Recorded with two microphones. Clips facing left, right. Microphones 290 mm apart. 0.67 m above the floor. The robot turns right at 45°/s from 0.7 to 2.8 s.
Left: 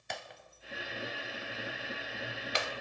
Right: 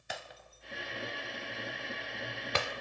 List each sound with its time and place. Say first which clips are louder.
0.1 s breaking glass: even; 5° right (ahead or behind), 0.9 m; by 2.7 s 70° right (ahead or behind), 0.9 m